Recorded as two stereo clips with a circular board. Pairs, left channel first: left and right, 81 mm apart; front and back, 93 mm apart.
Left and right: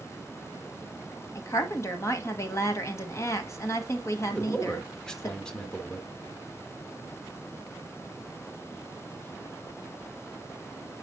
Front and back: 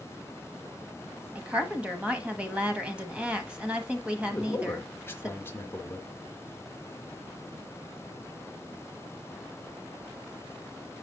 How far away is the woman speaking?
About 1.2 m.